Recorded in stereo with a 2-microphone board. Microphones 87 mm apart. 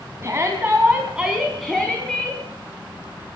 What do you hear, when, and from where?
0.2 s a shout: 30° right (ahead or behind), 3 m; by 2.4 s 15° left (ahead or behind), 4 m